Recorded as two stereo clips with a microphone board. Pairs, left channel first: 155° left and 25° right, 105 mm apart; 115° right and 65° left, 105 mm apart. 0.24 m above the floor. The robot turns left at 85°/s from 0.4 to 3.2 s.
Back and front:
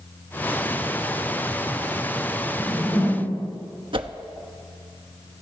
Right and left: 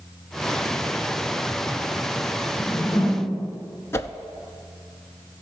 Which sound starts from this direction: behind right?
A whoosh, at 2.6 s.